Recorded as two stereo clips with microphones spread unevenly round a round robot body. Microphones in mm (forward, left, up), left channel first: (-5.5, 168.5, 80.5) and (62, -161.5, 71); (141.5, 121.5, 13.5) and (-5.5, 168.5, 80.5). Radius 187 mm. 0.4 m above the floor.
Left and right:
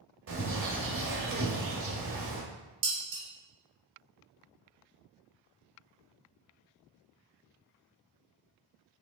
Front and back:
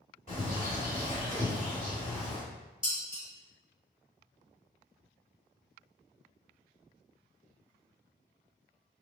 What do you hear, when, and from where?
0.3 s a bird: 130° right, 0.8 m
2.8 s dishes clattering: 100° right, 1.2 m